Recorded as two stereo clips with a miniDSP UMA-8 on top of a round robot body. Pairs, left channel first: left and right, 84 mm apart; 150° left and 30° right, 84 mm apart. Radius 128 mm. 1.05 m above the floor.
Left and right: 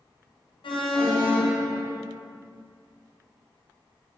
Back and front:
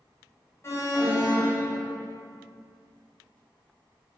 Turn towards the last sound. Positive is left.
turn(degrees=95)